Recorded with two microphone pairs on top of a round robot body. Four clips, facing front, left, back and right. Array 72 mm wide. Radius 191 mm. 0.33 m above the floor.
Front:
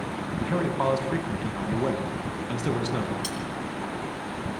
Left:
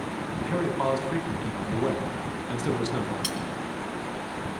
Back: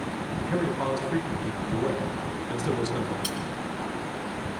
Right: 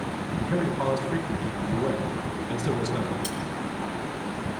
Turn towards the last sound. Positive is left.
turn(degrees=90)